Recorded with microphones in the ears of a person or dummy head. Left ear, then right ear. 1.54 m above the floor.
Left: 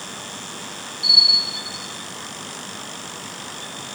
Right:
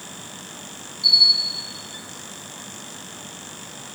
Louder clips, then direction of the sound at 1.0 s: Left 1 dB; 65° left (ahead or behind).